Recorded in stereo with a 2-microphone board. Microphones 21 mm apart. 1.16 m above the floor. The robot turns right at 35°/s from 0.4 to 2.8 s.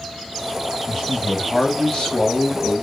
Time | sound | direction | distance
0.9 | a man speaking | 10° left | 1.4 m